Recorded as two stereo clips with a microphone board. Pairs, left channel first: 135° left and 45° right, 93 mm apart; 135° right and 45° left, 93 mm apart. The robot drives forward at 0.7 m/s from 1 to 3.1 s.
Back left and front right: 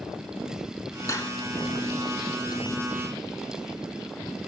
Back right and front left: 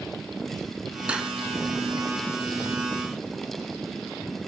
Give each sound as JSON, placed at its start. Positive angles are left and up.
{"t": 1.1, "sound": "cutlery clinking", "azimuth_deg": 115, "distance_m": 1.1}